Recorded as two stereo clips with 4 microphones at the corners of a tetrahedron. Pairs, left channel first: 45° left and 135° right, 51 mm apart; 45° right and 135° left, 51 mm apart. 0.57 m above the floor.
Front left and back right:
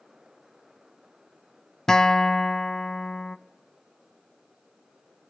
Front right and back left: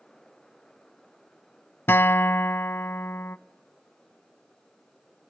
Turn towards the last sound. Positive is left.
turn(degrees=-30)